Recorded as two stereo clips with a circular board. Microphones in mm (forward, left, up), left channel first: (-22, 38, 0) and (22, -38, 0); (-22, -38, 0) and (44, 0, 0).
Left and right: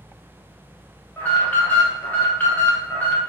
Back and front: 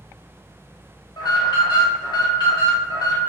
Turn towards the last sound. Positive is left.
turn(degrees=-170)